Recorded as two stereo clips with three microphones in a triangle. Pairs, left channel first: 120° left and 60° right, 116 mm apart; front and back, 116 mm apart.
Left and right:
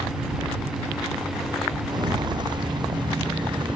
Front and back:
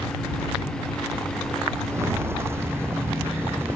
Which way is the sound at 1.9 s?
110° right.